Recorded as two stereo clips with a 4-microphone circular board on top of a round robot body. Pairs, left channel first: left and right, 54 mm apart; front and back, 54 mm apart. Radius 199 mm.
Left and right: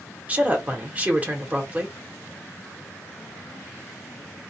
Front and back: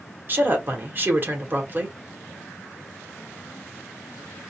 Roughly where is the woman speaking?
Behind right.